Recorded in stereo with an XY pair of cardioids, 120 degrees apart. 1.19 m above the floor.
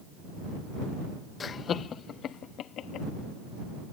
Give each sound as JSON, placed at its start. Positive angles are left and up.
{"t": 1.4, "sound": "laughter", "azimuth_deg": 40}